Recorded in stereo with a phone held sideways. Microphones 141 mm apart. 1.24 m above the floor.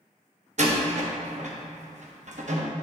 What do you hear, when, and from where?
0.6 s a door slam: 55° right (ahead or behind), 0.9 m